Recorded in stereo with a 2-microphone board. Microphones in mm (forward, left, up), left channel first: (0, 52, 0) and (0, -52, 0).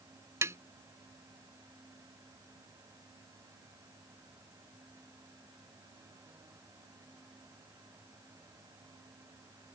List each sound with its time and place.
0.4 s tapping: 25° right (ahead or behind)